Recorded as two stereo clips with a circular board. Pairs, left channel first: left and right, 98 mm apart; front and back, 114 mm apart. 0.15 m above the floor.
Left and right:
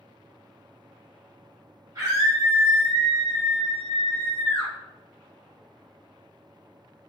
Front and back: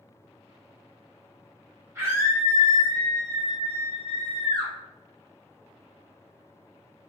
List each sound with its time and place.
1.9 s a scream: 135° right, 1.4 m; by 4.7 s 145° left, 1.7 m